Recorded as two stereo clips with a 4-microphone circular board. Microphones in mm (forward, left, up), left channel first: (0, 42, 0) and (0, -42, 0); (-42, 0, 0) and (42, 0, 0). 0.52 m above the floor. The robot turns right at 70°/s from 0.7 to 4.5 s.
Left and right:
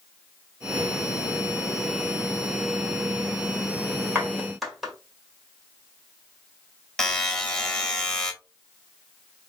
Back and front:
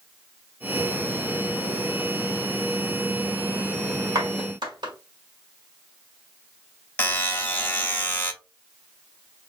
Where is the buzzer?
160° left, 0.9 m.